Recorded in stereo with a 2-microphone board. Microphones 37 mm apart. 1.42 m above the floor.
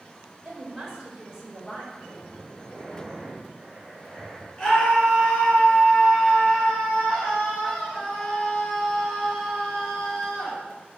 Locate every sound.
0.4 s a woman speaking: 20° right (ahead or behind), 5 m; by 1.8 s 5° right (ahead or behind), 4 m
1.9 s breathing: centre (ahead or behind), 6 m
4.6 s a scream: 15° left (ahead or behind), 6 m